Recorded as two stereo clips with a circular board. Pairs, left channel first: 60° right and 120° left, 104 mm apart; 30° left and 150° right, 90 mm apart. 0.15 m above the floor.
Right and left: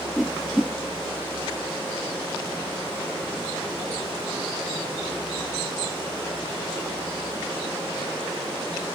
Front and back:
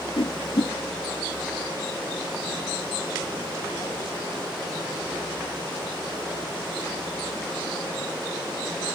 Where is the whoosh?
35° left, 0.6 m.